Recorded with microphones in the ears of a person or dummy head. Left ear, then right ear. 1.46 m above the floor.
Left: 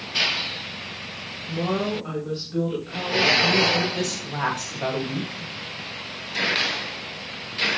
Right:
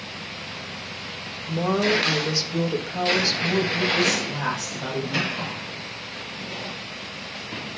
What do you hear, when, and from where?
1.5 s a woman speaking: 80° right, 2.5 m
4.0 s a woman speaking: 40° left (ahead or behind), 2 m